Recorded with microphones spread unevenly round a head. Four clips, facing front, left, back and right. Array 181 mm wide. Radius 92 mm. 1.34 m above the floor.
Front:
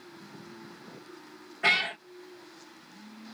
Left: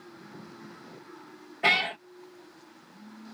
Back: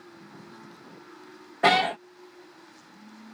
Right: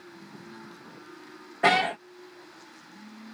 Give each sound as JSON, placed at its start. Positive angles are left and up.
{"t": 1.6, "sound": "a cat meowing", "azimuth_deg": -140}